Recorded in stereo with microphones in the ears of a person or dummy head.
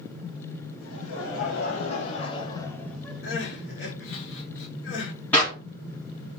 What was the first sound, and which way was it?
Laughter, 75° left (ahead or behind).